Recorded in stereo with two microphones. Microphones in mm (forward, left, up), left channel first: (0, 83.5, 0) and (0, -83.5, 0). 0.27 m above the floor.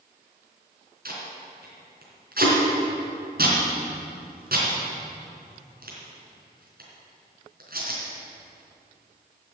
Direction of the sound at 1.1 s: 65° right (ahead or behind).